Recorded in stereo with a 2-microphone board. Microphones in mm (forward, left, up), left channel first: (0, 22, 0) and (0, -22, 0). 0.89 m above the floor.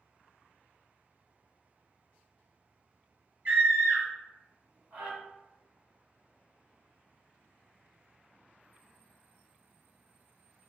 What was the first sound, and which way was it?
A scream, 30° right (ahead or behind).